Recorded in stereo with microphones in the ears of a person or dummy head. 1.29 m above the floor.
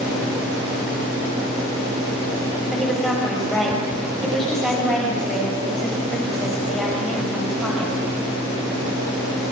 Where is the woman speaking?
Centre (ahead or behind), 5.5 m.